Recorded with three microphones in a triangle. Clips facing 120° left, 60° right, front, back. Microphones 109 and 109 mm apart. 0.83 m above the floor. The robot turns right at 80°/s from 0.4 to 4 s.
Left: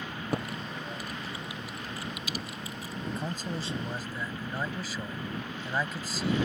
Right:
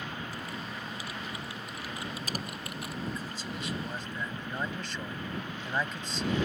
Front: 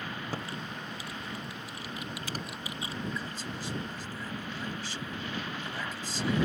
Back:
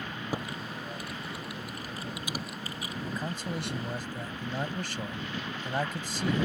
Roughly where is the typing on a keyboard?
Left.